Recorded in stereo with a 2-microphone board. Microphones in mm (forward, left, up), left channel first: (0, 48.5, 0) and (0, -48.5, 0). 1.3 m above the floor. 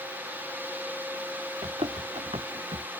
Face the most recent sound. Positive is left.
turn(degrees=-80)